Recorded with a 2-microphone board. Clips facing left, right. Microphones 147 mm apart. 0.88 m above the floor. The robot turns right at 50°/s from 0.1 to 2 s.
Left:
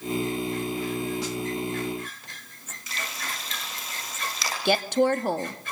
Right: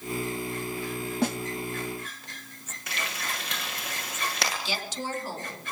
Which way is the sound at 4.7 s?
60° left (ahead or behind).